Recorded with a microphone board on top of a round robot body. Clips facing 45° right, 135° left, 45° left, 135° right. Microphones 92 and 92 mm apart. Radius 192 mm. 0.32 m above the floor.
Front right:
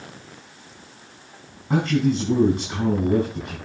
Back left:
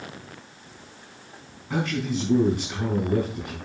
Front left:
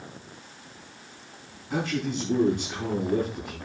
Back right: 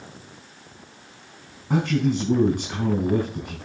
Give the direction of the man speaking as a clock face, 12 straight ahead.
3 o'clock.